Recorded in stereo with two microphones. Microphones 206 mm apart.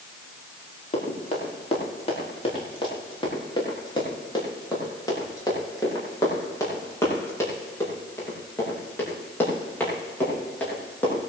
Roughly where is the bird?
I don't hear a bird.